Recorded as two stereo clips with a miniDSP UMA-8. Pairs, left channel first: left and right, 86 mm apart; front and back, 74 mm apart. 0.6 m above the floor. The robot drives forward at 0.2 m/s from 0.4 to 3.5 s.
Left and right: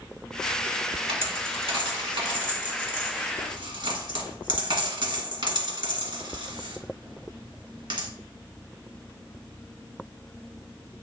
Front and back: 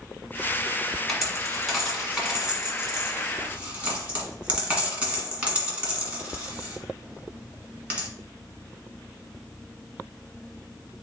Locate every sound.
1.1 s a dropped coin: 90° right, 1.5 m; by 8.1 s 105° right, 1.6 m